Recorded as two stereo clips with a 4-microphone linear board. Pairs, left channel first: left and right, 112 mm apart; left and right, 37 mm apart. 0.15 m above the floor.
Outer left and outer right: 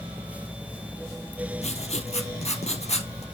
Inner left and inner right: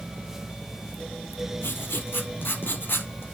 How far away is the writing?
About 1.4 m.